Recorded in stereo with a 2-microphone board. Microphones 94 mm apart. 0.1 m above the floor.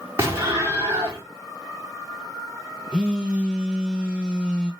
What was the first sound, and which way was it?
An explosion, 30° right (ahead or behind).